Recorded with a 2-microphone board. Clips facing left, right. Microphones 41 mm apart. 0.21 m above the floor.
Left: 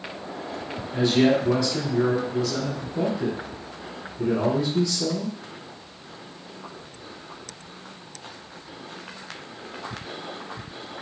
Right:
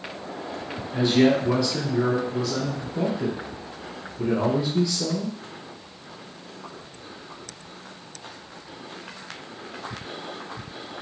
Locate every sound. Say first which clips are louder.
0.9 s a man speaking: even; 5° right (ahead or behind), 1.0 m